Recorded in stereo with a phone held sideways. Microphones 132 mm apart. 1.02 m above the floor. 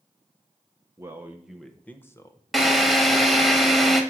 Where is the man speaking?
25° right (ahead or behind), 0.9 m; by 3.5 s 50° left (ahead or behind), 1.3 m.